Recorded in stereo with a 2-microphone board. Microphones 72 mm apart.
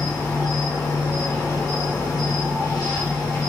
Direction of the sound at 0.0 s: 65° left (ahead or behind).